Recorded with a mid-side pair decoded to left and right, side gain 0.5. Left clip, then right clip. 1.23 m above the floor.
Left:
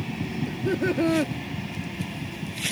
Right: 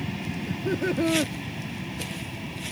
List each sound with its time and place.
0.5 s laughter: 15° left